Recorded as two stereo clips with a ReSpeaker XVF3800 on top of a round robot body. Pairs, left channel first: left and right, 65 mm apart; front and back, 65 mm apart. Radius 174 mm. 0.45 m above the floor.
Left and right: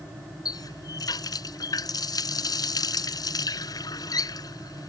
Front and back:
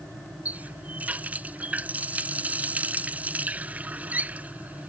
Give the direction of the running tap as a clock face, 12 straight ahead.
8 o'clock.